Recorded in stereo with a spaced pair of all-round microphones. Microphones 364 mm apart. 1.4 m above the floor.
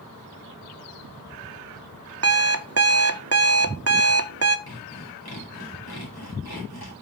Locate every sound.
2.2 s an alarm clock: 45° right (ahead or behind), 0.5 m
4.7 s sawing: 80° left, 2.5 m